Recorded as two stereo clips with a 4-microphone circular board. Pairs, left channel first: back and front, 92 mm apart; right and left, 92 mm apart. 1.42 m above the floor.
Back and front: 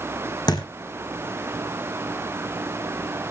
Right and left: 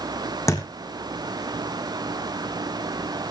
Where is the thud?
145° right, 3.5 m.